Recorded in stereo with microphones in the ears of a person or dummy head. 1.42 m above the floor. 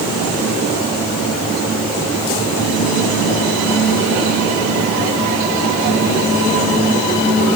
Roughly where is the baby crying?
I don't hear a baby crying.